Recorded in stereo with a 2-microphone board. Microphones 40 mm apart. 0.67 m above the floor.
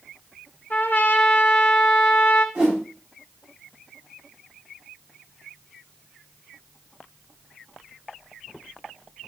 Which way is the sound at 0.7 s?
50° left (ahead or behind).